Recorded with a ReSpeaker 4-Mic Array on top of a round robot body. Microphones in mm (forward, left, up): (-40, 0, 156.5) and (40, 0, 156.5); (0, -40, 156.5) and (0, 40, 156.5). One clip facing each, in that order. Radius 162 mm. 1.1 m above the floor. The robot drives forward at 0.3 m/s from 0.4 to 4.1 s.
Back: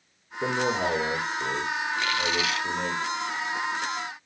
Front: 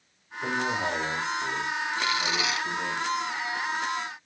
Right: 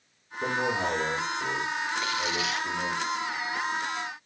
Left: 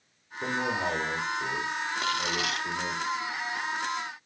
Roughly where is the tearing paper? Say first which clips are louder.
Back 1 dB, even; left.